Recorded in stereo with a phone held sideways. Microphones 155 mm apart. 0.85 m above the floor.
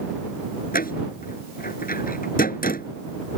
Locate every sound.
0.7 s a door slam: 70° left (ahead or behind)